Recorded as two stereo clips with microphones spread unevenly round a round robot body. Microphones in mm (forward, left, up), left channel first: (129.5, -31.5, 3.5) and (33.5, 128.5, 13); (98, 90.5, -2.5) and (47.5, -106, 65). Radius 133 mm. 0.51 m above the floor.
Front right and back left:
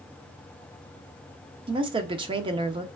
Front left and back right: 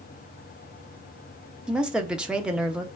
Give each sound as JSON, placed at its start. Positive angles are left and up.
{"t": 1.7, "sound": "a woman speaking", "azimuth_deg": 130, "distance_m": 0.7}